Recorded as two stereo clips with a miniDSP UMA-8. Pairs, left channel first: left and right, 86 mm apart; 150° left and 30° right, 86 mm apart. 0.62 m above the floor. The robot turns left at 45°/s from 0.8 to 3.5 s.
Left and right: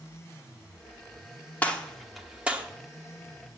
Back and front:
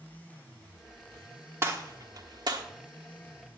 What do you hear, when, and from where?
1.6 s a gunshot: 25° left, 1.1 m; by 2.6 s 25° right, 1.1 m